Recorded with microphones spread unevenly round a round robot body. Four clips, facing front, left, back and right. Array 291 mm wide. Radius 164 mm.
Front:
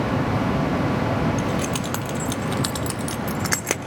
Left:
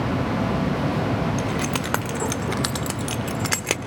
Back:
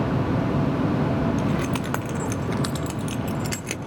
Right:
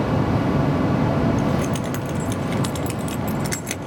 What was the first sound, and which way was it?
Keys jangling, 100° left.